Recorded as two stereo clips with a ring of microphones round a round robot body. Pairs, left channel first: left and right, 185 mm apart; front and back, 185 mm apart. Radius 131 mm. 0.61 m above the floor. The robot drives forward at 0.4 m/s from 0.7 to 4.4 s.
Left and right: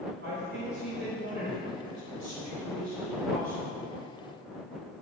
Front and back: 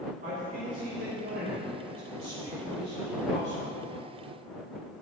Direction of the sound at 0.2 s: 125° right.